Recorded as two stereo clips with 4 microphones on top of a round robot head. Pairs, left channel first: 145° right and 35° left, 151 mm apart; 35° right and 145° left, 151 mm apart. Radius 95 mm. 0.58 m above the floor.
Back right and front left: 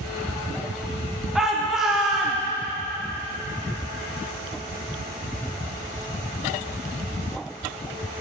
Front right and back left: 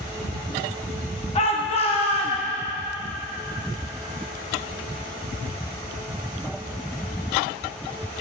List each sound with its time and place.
1.4 s a shout: 45° right, 0.9 m